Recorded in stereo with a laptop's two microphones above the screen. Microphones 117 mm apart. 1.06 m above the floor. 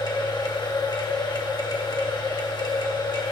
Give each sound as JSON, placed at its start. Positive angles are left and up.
{"t": 0.0, "sound": "a machine running", "side_deg": 40, "distance_m": 1.8}